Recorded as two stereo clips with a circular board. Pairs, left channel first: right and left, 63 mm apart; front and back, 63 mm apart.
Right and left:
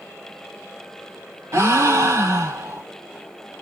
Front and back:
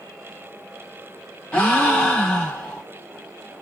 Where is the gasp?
75° left, 1.6 m.